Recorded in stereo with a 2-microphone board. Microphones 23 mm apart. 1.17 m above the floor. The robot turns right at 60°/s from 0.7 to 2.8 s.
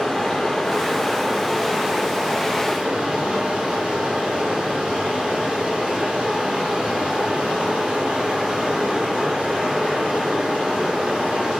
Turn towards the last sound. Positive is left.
turn(degrees=-80)